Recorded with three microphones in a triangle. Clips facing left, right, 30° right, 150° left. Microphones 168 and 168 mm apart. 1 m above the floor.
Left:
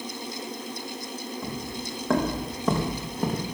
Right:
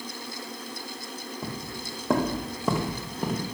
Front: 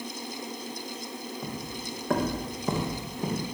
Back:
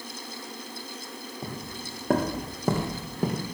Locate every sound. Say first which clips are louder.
1.4 s footsteps: left 2 dB, front 1 dB; 150° right, 4 m; by 3.5 s 175° left, 4 m